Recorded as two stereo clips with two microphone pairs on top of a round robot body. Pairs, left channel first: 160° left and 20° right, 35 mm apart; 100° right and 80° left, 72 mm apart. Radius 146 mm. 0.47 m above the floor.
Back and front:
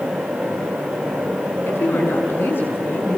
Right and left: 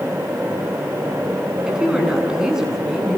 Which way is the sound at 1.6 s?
160° left.